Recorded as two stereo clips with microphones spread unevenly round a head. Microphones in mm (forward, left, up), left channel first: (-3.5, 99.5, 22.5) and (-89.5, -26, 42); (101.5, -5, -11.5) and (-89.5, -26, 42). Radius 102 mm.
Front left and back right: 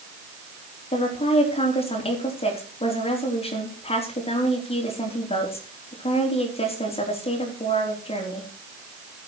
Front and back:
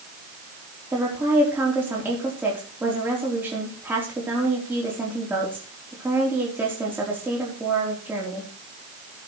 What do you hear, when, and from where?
0.9 s a woman speaking: 105° left, 4 m